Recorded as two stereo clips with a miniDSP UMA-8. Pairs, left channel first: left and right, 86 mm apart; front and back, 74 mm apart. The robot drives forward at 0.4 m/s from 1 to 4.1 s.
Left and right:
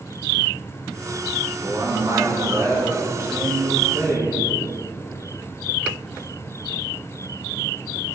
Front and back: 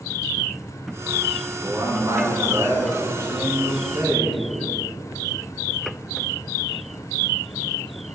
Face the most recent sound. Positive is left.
turn(degrees=-145)